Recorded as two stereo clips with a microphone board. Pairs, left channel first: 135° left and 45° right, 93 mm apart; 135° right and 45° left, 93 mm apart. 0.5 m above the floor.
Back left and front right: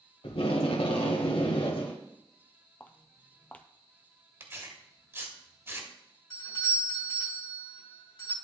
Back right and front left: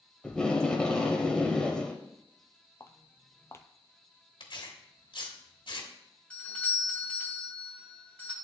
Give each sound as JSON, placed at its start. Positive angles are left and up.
{"t": 0.2, "sound": "tape being pulled", "azimuth_deg": 145, "distance_m": 1.2}
{"t": 2.8, "sound": "footsteps", "azimuth_deg": -165, "distance_m": 0.5}
{"t": 4.4, "sound": "tearing paper", "azimuth_deg": -110, "distance_m": 1.2}
{"t": 6.3, "sound": "a doorbell", "azimuth_deg": 150, "distance_m": 2.5}